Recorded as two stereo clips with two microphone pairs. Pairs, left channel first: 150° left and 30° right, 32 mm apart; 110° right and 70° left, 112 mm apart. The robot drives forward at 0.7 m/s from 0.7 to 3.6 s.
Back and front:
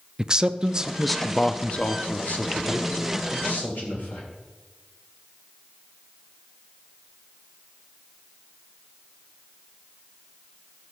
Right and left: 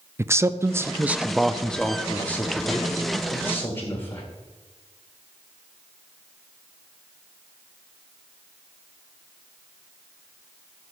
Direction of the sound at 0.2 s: 20° left.